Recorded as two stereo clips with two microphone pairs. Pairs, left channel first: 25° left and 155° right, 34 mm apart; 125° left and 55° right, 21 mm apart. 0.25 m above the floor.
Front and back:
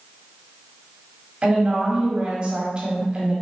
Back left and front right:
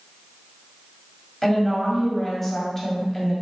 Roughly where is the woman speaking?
Behind.